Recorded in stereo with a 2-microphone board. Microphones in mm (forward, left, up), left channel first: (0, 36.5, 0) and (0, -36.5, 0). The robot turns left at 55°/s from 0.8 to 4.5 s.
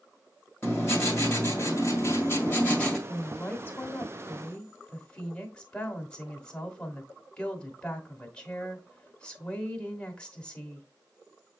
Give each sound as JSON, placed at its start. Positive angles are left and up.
{"t": 0.6, "sound": "writing", "azimuth_deg": 135, "distance_m": 1.6}
{"t": 3.1, "sound": "a woman speaking", "side_deg": 25, "distance_m": 1.0}